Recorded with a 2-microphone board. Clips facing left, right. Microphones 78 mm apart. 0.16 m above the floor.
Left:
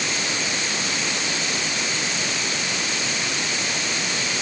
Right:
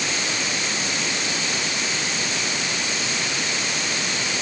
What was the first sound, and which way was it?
Only background noise.